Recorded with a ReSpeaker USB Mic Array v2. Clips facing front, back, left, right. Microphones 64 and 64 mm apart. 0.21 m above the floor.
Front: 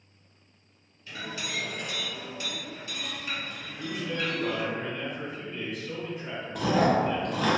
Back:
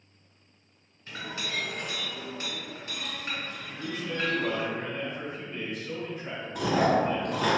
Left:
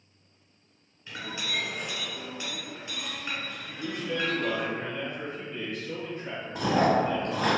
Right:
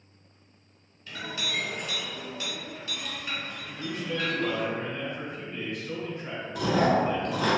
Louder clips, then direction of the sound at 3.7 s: Front 1 dB, even; 125° right.